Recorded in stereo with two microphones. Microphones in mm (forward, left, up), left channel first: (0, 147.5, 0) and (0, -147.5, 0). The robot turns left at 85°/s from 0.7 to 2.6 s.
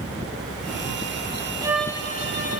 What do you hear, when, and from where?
1.6 s a violin: 165° right, 1.1 m; by 2.6 s 110° left, 1.1 m